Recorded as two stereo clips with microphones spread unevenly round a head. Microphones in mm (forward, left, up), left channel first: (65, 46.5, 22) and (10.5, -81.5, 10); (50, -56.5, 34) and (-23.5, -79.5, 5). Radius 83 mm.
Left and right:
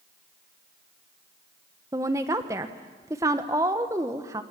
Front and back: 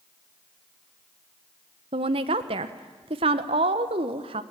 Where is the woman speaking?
175° left, 1.0 m.